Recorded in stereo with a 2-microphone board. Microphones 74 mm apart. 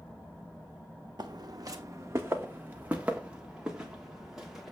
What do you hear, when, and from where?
1.2 s footsteps: 70° right (ahead or behind), 0.7 m; by 4.7 s 5° right (ahead or behind), 2.0 m